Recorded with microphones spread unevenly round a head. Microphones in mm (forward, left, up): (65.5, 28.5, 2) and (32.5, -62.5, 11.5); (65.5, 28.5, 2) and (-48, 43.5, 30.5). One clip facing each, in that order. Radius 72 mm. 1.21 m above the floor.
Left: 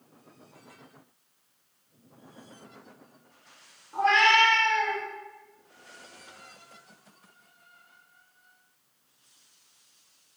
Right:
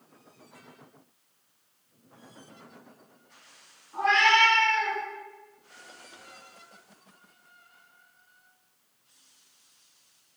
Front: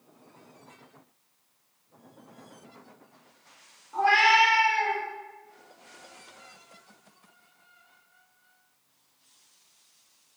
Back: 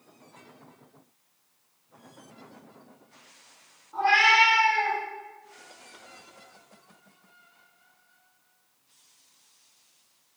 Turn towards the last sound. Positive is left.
turn(degrees=145)